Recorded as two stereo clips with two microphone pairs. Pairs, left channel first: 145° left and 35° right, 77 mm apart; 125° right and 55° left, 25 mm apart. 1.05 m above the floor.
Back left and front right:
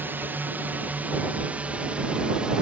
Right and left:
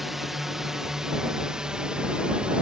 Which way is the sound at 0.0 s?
15° right.